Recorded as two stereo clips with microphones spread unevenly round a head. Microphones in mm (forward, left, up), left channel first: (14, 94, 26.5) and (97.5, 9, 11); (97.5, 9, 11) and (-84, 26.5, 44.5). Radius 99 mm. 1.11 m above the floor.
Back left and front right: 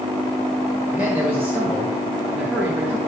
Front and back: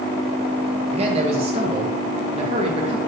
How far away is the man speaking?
About 1.7 m.